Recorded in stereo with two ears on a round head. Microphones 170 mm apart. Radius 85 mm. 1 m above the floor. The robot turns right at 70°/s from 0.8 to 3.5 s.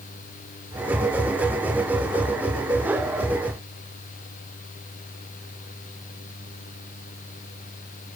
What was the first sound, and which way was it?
Only background noise.